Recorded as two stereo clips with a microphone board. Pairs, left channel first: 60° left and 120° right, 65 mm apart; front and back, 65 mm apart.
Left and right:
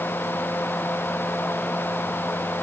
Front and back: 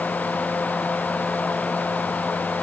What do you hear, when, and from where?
Only background noise.